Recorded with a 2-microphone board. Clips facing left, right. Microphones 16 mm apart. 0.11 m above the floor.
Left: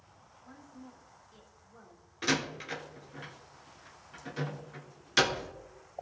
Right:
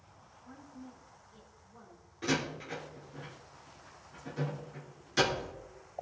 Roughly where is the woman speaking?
Left.